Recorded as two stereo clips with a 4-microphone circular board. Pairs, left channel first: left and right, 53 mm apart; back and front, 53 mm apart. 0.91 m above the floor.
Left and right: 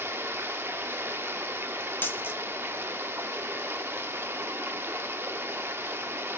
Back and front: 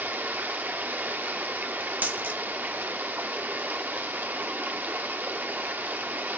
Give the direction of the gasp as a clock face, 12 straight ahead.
No gasp in this recording.